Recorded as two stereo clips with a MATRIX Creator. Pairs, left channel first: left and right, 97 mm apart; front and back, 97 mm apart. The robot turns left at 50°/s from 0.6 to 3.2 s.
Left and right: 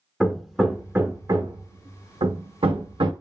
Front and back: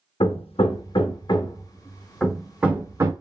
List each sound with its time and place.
0.2 s hammering: straight ahead, 0.5 m; by 3.1 s 125° right, 0.5 m